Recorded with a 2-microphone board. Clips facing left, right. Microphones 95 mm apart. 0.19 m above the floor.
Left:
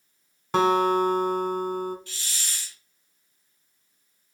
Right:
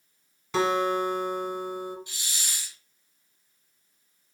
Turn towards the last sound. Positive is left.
turn(degrees=-15)  # may be behind; listen again after turning